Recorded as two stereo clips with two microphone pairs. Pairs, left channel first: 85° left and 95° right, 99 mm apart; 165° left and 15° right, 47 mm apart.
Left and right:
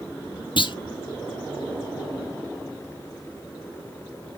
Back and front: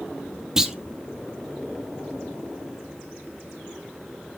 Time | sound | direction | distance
0.6 | a clunk | 60° left | 1.5 m